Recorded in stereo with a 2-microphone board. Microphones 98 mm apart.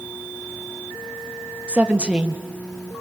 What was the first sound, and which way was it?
A woman speaking, 10° right (ahead or behind).